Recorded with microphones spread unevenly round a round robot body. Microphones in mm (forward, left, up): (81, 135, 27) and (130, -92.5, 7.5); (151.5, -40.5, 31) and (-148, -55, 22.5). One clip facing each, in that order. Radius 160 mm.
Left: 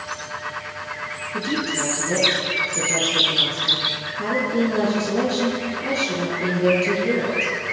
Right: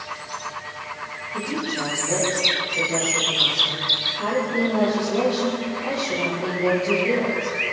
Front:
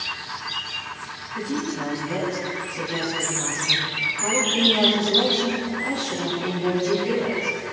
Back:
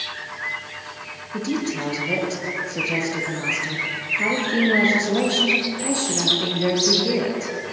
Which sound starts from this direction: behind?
A woman speaking, at 1.3 s.